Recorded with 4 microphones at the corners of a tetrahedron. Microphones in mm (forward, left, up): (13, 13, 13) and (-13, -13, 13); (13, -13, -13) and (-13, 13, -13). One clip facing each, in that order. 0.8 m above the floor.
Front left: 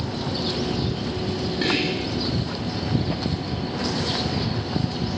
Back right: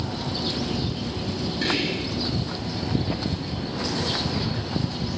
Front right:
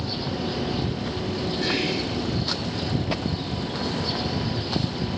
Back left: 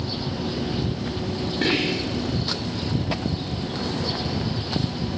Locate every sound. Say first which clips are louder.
1.6 s whispering: front left 2 dB, back left 4 dB; 115° left, 1.9 m